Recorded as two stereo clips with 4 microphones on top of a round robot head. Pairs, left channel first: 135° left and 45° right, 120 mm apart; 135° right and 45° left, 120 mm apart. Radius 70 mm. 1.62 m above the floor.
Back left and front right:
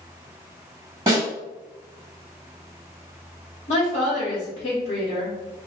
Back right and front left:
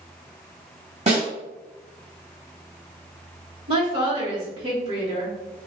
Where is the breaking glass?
I don't hear breaking glass.